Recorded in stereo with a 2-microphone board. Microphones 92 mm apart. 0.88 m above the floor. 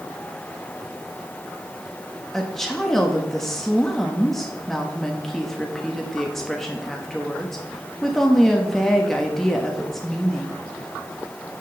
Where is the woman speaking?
5° left (ahead or behind), 1.0 m.